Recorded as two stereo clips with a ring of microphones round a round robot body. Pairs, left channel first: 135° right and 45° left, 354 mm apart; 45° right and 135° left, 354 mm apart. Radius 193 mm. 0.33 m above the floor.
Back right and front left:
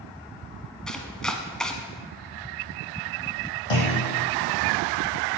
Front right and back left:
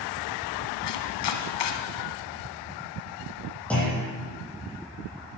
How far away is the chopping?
About 1.3 m.